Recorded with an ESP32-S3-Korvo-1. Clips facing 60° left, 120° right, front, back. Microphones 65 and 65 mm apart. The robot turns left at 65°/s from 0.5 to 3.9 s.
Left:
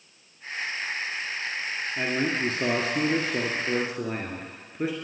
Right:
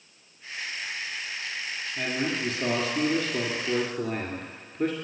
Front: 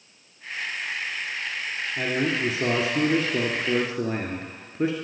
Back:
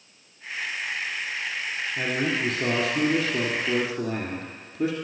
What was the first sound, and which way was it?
A man speaking, 110° left.